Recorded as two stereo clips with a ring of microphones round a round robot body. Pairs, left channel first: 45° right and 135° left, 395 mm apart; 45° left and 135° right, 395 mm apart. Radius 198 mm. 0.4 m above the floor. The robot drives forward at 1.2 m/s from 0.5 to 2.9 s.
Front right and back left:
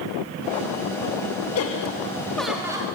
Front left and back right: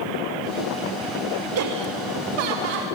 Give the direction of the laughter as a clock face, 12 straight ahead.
3 o'clock.